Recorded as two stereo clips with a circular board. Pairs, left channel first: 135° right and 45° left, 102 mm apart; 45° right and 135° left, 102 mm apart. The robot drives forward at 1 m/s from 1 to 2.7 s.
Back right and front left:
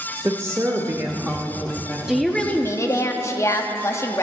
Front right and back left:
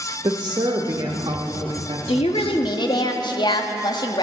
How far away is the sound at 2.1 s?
About 1.1 m.